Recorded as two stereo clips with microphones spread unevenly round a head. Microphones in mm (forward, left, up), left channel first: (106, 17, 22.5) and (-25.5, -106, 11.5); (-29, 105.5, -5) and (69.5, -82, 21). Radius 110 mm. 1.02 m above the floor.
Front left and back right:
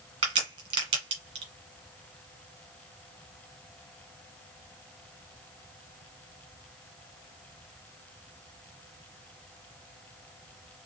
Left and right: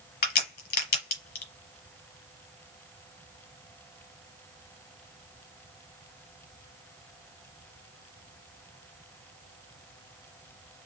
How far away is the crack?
About 1.2 m.